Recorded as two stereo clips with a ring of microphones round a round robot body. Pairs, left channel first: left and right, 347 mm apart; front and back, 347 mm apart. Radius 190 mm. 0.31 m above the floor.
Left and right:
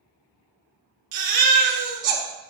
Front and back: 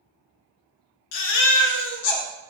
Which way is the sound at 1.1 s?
20° right.